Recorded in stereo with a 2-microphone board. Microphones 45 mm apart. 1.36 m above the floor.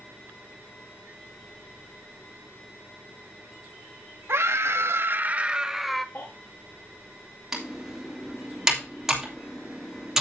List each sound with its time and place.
4.3 s a scream: 65° right (ahead or behind), 1.1 m; by 6.0 s 5° left (ahead or behind), 1.0 m
6.2 s a baby crying: 45° left (ahead or behind), 3.5 m
7.5 s typing on a keyboard: 10° right (ahead or behind), 2.5 m